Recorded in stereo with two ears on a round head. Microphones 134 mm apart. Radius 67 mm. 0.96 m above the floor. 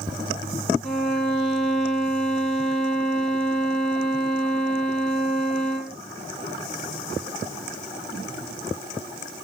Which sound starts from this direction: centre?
A violin, at 0.8 s.